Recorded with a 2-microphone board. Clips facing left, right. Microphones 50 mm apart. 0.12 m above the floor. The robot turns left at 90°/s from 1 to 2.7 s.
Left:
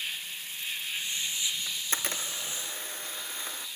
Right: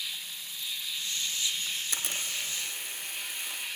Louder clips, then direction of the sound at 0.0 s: Left 2 dB; 45° left.